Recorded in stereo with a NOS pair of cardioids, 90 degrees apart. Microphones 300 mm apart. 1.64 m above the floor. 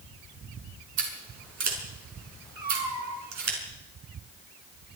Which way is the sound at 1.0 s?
65° right.